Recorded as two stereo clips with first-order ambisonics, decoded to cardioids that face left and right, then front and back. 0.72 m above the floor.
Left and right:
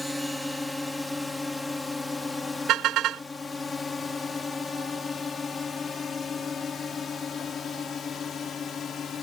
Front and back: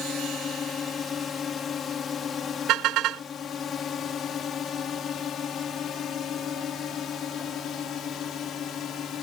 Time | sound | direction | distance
0.0 | a drone | 15° left | ?
2.7 | a car horn | 140° right | ?